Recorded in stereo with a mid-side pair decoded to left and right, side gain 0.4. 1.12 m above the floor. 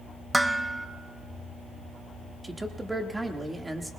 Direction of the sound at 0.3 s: 10° right.